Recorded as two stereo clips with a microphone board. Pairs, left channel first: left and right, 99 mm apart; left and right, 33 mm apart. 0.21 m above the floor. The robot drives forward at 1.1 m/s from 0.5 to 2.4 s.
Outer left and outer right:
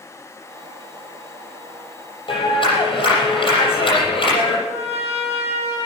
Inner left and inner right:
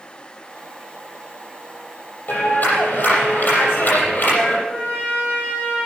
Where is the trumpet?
85° left, 7 m.